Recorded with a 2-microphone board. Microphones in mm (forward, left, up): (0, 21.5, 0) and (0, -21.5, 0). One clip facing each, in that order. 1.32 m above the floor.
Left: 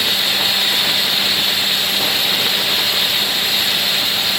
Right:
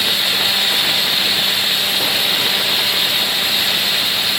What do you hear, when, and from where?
Only background noise.